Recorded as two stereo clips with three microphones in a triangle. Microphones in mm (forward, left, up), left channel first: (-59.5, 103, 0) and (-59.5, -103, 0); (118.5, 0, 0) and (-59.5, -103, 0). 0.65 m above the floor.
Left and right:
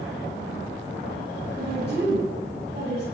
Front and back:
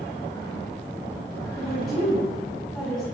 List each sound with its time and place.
1.6 s a woman speaking: 60° right, 5.5 m